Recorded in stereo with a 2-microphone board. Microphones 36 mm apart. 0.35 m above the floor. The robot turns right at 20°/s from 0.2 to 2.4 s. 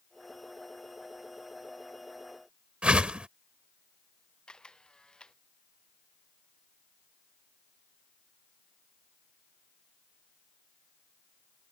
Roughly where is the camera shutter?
Left.